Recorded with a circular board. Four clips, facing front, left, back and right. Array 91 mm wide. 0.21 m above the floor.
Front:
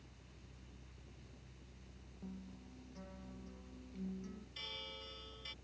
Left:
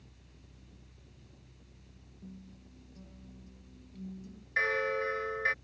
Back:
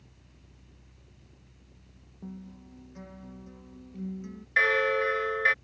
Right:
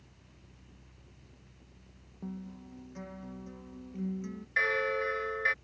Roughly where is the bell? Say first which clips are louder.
Right 1 dB, back 28 dB; behind.